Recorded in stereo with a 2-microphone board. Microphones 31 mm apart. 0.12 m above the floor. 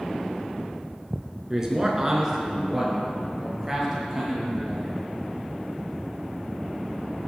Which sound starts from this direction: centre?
A man speaking, at 1.5 s.